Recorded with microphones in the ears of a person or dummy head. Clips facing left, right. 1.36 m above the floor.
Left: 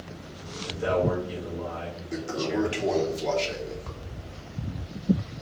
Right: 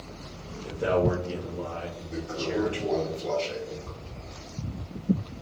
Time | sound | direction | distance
0.6 | a man speaking | 40° right (ahead or behind) | 0.9 m
2.1 | a toilet flushing | 75° left (ahead or behind) | 0.8 m